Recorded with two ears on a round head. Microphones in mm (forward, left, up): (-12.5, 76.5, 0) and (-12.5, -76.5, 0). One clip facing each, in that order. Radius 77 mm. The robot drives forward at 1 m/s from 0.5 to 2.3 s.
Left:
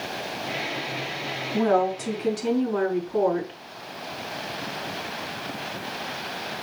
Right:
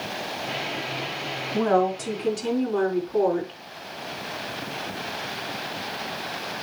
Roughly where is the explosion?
No explosion in this recording.